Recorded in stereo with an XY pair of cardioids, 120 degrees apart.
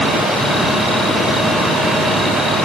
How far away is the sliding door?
No sliding door in this recording.